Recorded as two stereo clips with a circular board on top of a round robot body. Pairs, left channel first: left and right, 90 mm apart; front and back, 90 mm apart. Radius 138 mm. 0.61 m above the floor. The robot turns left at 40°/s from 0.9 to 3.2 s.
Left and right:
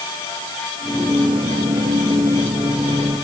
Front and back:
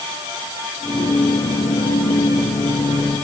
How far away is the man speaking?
I don't hear a man speaking.